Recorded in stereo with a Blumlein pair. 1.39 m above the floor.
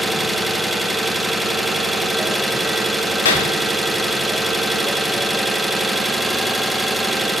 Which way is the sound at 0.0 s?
5° right.